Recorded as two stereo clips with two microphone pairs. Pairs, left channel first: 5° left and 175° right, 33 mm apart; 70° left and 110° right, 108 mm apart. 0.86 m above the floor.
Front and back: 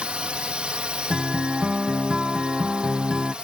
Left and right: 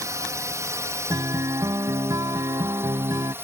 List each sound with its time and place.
0.0 s a drone: 150° right; by 3.4 s 155° right
1.1 s a guitar: 130° right